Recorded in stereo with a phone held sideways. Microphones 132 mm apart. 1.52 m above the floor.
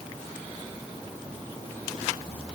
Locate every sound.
Only background noise.